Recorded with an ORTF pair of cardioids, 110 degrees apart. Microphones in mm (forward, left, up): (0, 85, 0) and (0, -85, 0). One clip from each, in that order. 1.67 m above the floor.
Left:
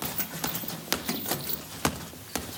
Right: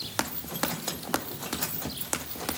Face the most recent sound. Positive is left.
No sound to turn to.